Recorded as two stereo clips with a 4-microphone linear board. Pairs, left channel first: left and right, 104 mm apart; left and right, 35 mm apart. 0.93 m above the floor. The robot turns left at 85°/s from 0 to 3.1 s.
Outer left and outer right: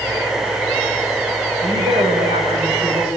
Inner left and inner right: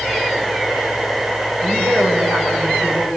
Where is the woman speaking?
40° right, 5.5 m; by 3.1 s 160° right, 5.5 m.